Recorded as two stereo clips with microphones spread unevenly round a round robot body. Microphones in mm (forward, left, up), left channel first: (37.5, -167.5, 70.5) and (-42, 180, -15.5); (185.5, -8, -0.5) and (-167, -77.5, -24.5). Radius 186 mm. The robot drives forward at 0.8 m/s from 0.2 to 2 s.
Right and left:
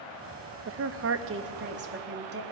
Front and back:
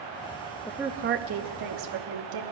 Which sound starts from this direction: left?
A woman speaking, at 0.7 s.